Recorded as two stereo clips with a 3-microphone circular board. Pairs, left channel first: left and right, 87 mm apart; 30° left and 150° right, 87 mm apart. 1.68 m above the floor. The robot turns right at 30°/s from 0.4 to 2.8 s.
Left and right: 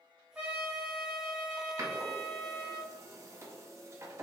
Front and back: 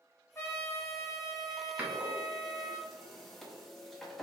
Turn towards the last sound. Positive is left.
turn(degrees=-55)